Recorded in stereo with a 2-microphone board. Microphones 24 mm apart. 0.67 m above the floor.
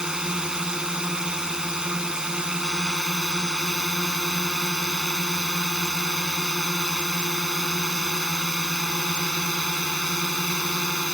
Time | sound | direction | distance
0.0 | a drone | 30° right (ahead or behind) | ?